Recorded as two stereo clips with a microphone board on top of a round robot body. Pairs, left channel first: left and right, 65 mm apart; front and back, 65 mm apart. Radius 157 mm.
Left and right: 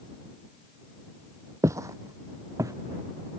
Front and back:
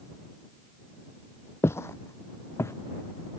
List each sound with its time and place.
1.6 s footsteps: 50° right